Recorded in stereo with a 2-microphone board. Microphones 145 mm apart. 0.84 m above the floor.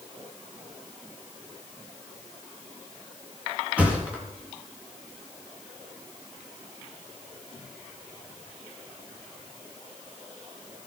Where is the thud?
10° right (ahead or behind), 3 m.